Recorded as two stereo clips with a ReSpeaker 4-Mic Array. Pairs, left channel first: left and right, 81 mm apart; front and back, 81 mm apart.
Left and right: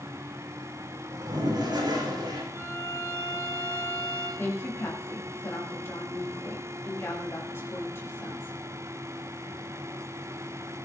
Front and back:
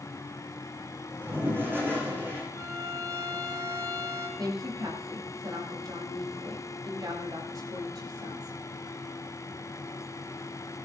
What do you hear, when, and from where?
1.1 s a toilet flushing: 120° right, 7 m
2.5 s a violin: 145° right, 4 m
4.4 s a woman speaking: 145° left, 5.5 m